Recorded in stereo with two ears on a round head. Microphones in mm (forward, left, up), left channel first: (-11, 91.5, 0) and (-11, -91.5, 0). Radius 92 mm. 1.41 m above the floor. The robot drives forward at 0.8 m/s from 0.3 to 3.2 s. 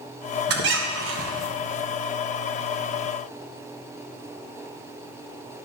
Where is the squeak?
55° right (ahead or behind), 1.0 m; by 1.5 s 65° right (ahead or behind), 0.9 m.